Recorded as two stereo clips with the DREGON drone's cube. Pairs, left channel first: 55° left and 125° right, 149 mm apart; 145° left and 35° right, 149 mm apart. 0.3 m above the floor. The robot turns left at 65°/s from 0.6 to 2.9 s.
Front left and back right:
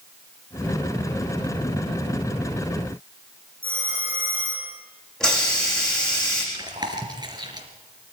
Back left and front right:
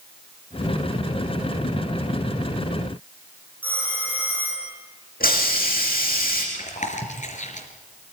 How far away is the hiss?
About 8 m.